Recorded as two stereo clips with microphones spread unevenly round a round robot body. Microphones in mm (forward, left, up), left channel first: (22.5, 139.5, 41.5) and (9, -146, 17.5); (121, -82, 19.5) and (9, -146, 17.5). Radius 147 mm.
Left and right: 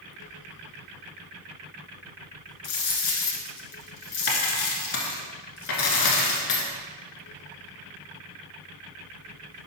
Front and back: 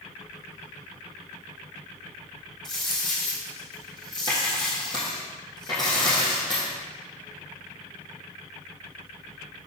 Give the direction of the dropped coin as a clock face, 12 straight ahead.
9 o'clock.